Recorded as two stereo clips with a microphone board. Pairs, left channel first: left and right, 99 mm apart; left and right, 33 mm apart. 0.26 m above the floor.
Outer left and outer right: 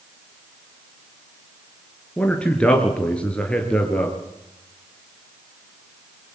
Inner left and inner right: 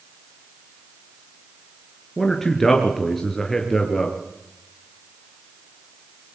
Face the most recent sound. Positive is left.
turn(degrees=10)  # may be behind; listen again after turning